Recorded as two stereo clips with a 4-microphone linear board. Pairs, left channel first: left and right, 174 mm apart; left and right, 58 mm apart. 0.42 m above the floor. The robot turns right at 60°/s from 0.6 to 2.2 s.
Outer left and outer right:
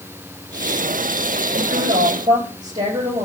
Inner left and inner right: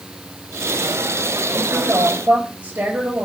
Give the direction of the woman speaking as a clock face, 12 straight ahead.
2 o'clock.